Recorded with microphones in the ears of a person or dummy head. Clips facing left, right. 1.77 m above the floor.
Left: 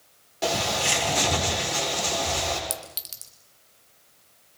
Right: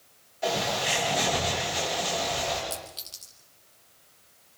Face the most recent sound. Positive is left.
turn(degrees=25)  # may be behind; listen again after turning